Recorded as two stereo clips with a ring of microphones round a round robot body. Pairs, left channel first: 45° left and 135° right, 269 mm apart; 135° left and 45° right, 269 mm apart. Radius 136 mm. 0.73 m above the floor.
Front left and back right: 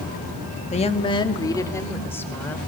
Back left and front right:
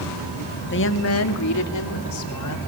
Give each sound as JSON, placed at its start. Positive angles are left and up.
{"t": 0.7, "sound": "a woman speaking", "azimuth_deg": 105, "distance_m": 1.5}